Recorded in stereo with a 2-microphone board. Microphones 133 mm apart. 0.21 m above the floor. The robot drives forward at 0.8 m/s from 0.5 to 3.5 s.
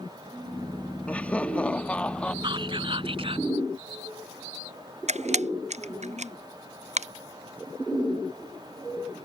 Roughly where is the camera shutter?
Right.